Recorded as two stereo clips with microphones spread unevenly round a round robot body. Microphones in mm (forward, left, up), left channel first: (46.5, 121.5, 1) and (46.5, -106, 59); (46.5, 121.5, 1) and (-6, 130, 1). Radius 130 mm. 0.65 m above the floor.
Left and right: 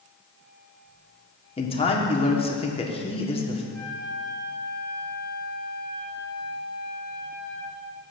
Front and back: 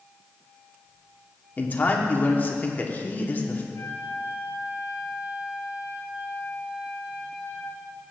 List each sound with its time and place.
1.6 s a man speaking: 40° left, 1.5 m
3.7 s a flute: straight ahead, 3.5 m